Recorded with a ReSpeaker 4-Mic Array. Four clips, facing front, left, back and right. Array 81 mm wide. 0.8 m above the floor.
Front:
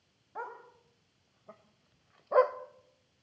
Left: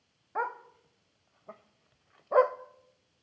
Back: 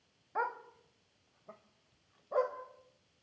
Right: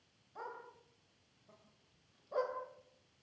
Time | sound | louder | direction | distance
0.3 | a dog barking | left 14 dB, back 6 dB | 115° left | 1.5 m